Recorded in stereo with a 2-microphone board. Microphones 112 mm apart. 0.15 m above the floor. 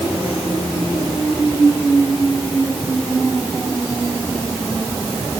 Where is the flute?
No flute in this recording.